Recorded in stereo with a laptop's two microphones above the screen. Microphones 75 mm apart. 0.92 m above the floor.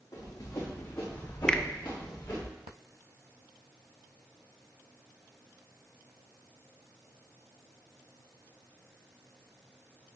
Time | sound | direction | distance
0.1 | running footsteps | 45° left (ahead or behind) | 3.5 m
1.5 | a finger snap | 10° left (ahead or behind) | 0.6 m